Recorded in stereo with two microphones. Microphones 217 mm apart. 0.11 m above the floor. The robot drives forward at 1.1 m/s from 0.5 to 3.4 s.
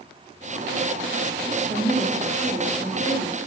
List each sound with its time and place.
1.7 s a woman speaking: 10° left (ahead or behind), 1.3 m; by 3.4 s 5° left (ahead or behind), 1.8 m